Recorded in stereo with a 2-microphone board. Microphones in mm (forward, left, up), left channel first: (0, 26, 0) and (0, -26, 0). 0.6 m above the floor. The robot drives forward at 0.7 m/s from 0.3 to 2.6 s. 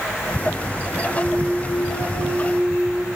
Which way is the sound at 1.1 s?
50° right (ahead or behind).